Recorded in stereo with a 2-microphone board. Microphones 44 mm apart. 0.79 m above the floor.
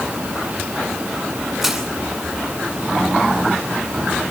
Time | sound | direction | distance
1.6 | crushing | centre (ahead or behind) | 9.5 m